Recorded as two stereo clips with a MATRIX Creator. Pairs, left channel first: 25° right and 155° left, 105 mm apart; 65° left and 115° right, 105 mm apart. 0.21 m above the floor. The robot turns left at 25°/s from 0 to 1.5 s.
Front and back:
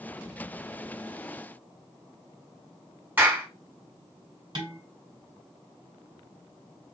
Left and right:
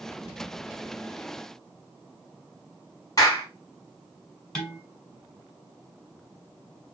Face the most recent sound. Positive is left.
turn(degrees=150)